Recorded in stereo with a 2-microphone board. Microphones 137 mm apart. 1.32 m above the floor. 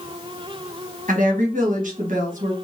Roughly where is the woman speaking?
Right.